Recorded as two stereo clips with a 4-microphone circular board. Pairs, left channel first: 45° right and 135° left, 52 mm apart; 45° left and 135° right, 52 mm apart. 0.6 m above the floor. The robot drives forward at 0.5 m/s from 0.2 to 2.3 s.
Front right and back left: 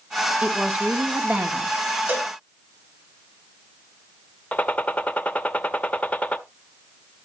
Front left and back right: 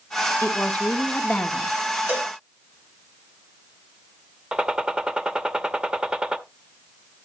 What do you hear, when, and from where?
0.4 s a woman speaking: 75° left, 1.4 m; by 1.7 s 110° left, 1.4 m
2.1 s a cowbell: straight behind, 1.1 m
4.5 s a gunshot: 80° right, 0.6 m